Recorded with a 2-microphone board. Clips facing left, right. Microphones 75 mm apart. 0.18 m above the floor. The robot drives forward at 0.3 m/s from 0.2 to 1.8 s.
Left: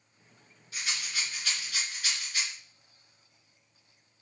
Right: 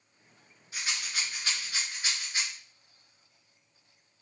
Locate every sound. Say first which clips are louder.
0.7 s a rattle: even; 35° right (ahead or behind), 2.5 m